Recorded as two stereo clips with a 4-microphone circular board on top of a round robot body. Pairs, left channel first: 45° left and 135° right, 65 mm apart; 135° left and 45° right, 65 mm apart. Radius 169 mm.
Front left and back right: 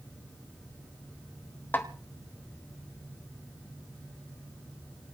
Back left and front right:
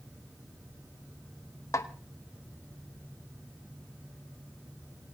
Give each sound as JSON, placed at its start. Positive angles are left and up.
{"t": 1.7, "sound": "a snare drum", "azimuth_deg": 100, "distance_m": 2.0}